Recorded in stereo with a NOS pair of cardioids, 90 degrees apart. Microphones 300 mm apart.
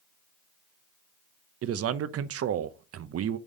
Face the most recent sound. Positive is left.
turn(degrees=-50)